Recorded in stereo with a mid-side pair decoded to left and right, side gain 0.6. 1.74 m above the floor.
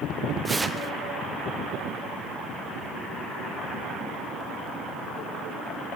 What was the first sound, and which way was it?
Tearing paper, 15° right.